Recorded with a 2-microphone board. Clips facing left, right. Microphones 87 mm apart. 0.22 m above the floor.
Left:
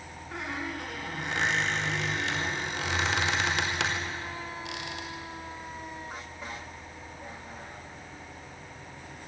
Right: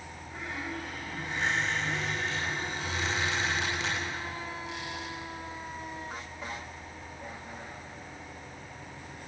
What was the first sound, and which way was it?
A squeak, 75° left (ahead or behind).